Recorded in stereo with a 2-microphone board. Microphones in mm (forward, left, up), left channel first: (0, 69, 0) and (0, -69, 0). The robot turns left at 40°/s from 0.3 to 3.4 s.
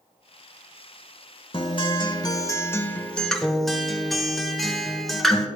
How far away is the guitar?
About 0.9 m.